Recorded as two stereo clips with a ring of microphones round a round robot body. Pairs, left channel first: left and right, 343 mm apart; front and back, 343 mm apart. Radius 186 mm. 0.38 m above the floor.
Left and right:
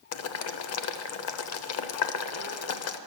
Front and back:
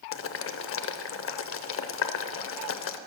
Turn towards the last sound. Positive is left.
turn(degrees=50)